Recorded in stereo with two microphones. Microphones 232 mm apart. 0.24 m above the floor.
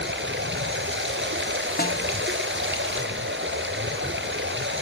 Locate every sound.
0.0 s running water: 55° right (ahead or behind), 3 m
1.8 s a snare drum: 40° left (ahead or behind), 2 m